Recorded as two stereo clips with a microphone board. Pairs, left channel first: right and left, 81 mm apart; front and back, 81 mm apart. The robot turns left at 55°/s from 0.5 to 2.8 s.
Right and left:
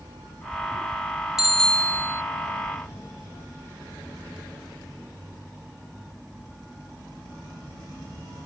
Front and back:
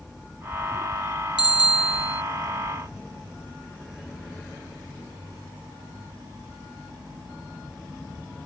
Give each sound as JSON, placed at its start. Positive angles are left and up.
{"t": 1.4, "sound": "a bicycle bell", "azimuth_deg": 5}